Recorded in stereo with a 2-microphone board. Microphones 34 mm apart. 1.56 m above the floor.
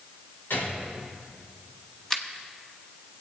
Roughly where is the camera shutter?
Centre.